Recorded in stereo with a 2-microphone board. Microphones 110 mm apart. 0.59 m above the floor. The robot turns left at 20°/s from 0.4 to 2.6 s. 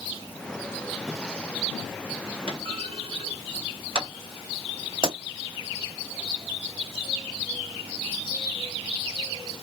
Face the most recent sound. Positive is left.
turn(degrees=-50)  # may be behind; listen again after turning